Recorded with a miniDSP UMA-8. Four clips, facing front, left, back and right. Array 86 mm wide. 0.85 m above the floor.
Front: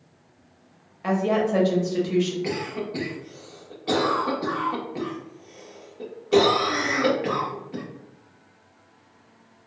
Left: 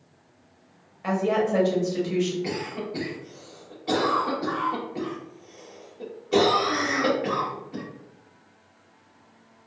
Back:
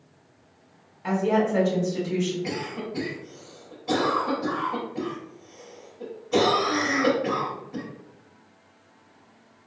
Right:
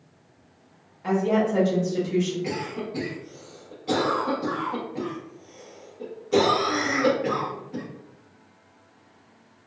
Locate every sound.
1.0 s a woman speaking: 30° left, 1.6 m
2.4 s a cough: 15° left, 1.5 m